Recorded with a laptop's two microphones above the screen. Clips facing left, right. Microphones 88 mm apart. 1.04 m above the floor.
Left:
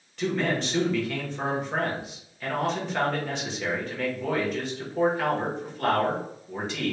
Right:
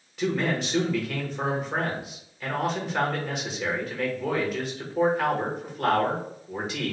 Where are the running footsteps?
No running footsteps in this recording.